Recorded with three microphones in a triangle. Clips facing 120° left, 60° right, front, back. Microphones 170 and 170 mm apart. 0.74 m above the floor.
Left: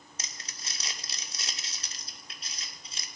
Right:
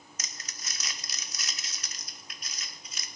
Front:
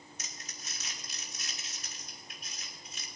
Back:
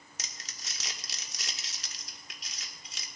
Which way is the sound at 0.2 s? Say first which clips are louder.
Left 1 dB, front 1 dB; 175° right.